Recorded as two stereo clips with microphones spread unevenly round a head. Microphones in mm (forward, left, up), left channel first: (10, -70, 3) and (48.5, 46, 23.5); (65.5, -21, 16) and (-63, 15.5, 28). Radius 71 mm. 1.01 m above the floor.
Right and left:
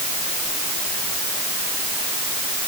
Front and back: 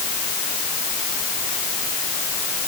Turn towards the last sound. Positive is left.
No sound to turn to.